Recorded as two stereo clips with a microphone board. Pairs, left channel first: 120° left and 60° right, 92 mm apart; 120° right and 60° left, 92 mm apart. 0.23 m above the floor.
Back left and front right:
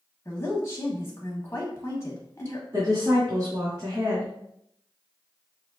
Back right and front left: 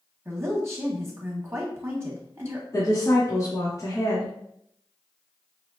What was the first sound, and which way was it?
A woman speaking, 90° left.